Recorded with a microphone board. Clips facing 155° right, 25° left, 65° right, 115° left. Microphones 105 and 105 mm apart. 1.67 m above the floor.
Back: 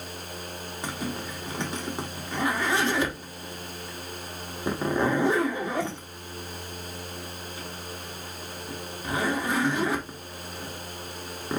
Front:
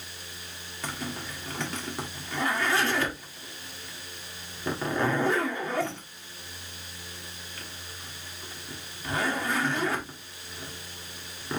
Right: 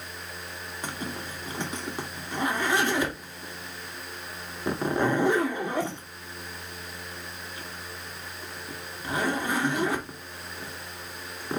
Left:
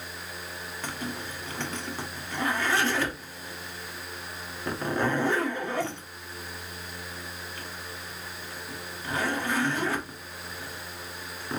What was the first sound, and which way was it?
A zipper, 120° right.